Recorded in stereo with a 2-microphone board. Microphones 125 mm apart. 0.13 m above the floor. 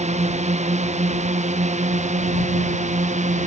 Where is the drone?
65° right (ahead or behind); by 3.5 s 75° right (ahead or behind).